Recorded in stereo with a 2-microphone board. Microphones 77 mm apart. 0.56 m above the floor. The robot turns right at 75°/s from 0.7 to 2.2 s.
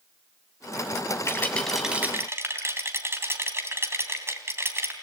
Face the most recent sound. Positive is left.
turn(degrees=-145)